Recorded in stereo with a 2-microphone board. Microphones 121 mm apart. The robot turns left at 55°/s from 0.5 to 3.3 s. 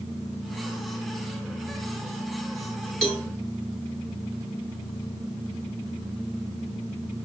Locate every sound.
3.0 s a cowbell: 5° left (ahead or behind), 1.9 m; by 3.3 s 20° left (ahead or behind), 1.9 m